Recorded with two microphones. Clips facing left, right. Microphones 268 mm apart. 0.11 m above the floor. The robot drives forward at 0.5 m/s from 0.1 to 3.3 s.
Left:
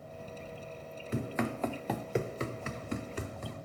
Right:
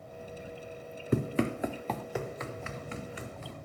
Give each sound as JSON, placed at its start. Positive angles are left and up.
{"t": 1.1, "sound": "running footsteps", "side_deg": -55, "distance_m": 0.7}